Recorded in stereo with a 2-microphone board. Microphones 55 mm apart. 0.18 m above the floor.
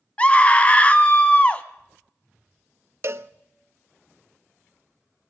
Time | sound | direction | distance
0.2 | a scream | 25° left (ahead or behind) | 1.2 m
3.0 | a cowbell | 50° right (ahead or behind) | 0.6 m